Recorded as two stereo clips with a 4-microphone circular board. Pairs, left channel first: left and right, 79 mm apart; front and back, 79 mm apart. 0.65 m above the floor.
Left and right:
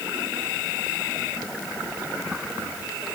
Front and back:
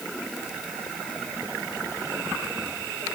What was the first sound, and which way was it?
Only background noise.